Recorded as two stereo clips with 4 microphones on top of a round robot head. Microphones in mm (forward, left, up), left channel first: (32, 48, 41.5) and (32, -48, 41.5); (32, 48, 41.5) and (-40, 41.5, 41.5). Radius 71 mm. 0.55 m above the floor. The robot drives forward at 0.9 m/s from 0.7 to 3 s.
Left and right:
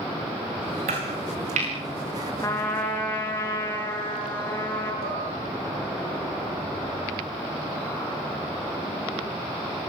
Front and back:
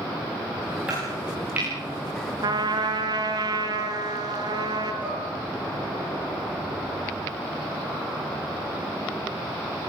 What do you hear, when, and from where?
0.9 s chopping: 95° right, 8.5 m; by 1.7 s 100° right, 8.5 m
2.4 s a trumpet: 160° left, 3.5 m; by 4.9 s 165° left, 4 m
5.0 s dishes clattering: 105° right, 6.5 m